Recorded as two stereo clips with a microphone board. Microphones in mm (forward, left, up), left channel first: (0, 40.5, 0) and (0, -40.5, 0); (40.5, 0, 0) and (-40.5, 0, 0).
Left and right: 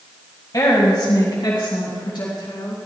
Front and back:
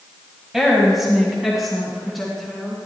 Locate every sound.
0.5 s a woman speaking: 100° left, 1.8 m; by 2.8 s 90° left, 3 m